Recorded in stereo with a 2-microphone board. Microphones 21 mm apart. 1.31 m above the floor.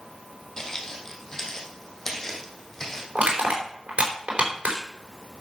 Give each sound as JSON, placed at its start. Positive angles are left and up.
{"t": 0.6, "sound": "footsteps", "side_deg": 35, "distance_m": 2.5}
{"t": 3.1, "sound": "crushing", "side_deg": -85, "distance_m": 4.0}